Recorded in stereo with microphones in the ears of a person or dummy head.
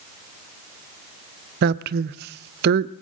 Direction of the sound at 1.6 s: 60° right (ahead or behind).